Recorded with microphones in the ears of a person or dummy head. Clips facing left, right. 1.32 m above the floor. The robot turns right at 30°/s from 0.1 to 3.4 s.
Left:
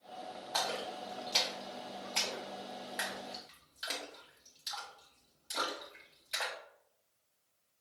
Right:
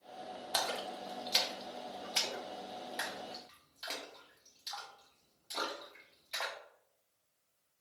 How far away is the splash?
About 0.7 m.